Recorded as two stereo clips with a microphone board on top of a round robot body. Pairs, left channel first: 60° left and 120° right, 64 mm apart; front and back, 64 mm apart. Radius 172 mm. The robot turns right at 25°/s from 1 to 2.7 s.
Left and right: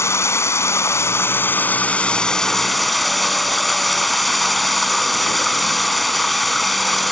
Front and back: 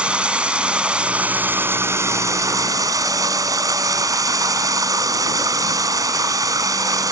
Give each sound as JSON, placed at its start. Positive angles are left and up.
{"t": 0.0, "sound": "running water", "azimuth_deg": 105}